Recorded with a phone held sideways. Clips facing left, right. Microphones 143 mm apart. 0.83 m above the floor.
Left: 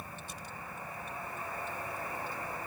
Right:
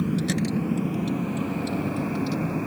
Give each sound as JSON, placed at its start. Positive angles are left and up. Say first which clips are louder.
{"t": 0.0, "sound": "a vehicle", "louder": "right 21 dB", "side_deg": -80}